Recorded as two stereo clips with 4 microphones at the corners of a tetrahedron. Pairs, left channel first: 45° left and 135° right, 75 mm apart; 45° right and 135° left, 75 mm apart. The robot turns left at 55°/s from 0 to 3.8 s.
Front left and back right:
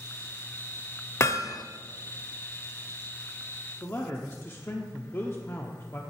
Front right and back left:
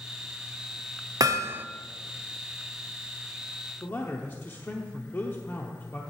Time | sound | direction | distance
1.2 | hammering | 100° left | 0.6 m
3.8 | a man speaking | straight ahead | 0.9 m